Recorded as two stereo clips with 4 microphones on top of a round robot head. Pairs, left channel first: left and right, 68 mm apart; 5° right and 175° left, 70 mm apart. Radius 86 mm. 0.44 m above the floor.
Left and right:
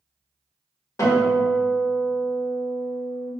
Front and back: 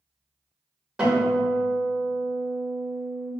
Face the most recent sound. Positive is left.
turn(degrees=110)